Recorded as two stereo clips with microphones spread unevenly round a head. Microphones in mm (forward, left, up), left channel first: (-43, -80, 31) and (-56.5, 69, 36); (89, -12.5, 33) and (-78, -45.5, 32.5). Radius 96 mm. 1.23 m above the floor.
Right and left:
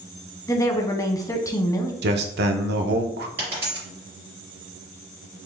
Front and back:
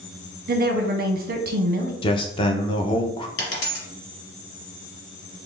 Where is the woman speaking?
150° right, 0.9 m.